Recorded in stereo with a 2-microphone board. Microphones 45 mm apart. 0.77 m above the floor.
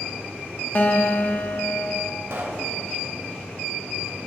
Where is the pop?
75° right (ahead or behind), 2 m.